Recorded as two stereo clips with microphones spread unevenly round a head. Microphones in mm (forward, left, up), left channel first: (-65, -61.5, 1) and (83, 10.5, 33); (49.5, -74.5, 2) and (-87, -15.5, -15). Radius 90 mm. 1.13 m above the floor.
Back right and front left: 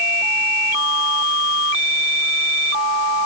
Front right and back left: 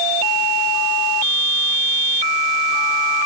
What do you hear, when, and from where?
Only background noise.